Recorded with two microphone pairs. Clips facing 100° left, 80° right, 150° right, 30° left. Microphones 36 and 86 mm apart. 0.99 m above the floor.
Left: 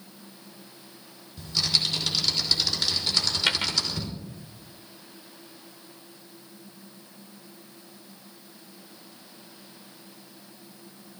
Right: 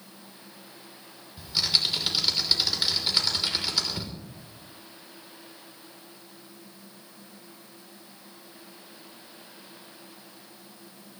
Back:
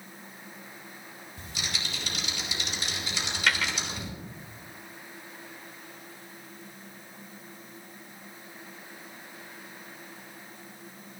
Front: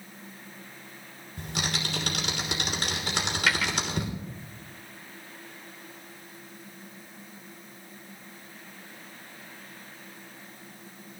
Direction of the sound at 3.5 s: 115° left.